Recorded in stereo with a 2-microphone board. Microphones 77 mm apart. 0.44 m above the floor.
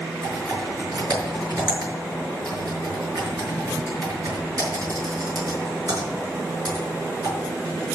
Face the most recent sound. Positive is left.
turn(degrees=-50)  # may be behind; listen again after turning